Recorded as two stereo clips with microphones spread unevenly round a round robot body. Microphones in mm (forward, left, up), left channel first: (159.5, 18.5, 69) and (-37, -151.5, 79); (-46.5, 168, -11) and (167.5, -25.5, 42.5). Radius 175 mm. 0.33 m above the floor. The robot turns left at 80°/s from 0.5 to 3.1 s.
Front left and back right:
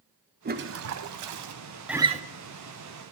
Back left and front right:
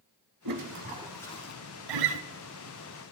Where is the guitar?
50° right, 1.0 m; by 2.2 s 75° right, 1.0 m.